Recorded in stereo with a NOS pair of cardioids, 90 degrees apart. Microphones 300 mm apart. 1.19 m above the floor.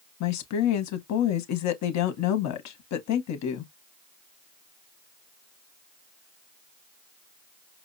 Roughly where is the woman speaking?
Ahead left.